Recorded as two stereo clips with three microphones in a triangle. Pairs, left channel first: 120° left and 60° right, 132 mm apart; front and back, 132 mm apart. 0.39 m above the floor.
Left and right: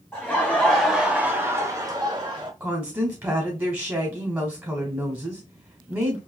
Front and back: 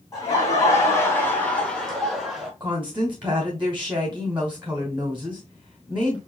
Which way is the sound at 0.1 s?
50° left.